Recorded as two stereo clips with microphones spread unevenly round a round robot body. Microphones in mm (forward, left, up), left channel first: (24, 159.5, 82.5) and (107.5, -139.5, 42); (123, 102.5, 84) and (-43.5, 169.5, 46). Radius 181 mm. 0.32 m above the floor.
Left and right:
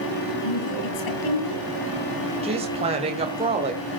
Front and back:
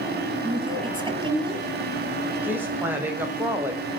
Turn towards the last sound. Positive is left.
turn(degrees=-135)